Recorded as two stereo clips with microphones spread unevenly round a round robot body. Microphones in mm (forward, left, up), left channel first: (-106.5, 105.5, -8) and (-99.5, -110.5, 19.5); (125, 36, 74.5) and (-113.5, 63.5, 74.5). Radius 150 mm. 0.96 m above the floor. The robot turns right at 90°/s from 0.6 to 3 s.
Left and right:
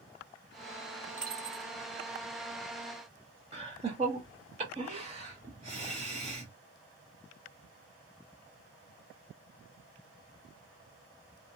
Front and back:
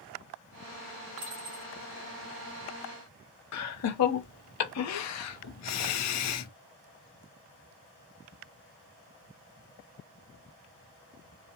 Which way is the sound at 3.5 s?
15° right.